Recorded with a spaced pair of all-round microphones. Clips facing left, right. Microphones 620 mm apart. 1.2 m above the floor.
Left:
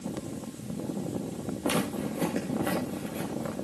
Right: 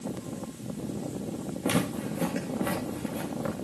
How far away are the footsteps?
About 4 m.